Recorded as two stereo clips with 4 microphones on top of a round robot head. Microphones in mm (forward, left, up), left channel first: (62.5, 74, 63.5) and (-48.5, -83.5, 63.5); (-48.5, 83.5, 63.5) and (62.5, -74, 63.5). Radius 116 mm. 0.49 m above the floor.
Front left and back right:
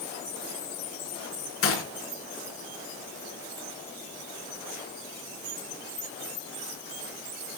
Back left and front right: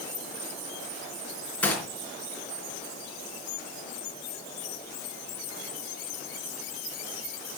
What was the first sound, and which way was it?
A gunshot, 40° left.